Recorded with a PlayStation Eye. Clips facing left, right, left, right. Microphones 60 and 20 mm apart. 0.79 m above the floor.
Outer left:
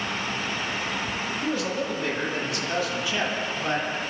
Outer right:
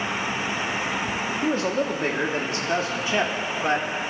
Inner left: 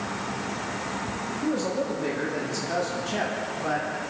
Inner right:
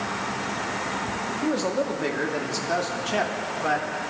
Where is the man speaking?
35° right (ahead or behind), 1.6 m; by 3.9 s 30° right (ahead or behind), 2.5 m.